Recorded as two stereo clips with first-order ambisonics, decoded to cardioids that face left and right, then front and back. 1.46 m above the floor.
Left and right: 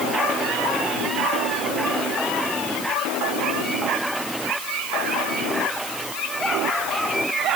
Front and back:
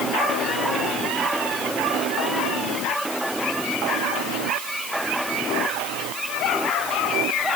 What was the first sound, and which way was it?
Only background noise.